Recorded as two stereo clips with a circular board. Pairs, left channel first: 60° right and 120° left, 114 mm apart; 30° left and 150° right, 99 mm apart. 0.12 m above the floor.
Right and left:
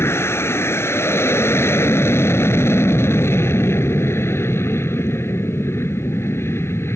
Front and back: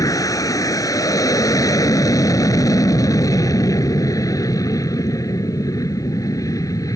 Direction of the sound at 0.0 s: Straight ahead.